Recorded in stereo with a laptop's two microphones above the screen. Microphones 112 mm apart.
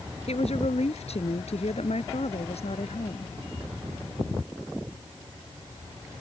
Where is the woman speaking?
70° left (ahead or behind).